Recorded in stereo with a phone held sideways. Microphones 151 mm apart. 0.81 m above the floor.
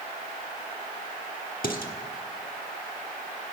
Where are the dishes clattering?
70° left (ahead or behind), 1.3 m.